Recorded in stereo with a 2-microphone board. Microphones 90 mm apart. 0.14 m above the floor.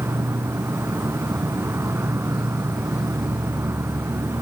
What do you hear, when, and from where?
0.0 s an insect: 30° right (ahead or behind)